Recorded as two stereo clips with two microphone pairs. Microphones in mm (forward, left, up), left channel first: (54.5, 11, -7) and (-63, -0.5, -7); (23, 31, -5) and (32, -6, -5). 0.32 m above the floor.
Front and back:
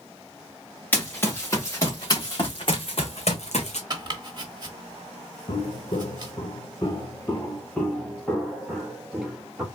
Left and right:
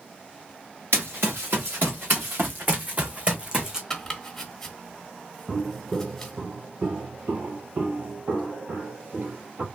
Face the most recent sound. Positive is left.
turn(degrees=-90)